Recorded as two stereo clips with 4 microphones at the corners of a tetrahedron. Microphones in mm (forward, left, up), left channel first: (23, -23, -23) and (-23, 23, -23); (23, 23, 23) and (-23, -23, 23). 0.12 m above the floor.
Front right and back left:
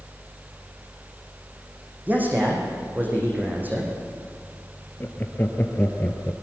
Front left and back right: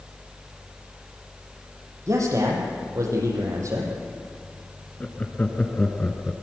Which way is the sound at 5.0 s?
5° right.